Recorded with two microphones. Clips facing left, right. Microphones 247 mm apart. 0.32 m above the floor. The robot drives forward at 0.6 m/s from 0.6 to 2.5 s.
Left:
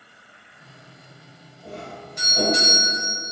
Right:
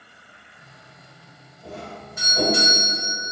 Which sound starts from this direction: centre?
A doorbell, at 1.6 s.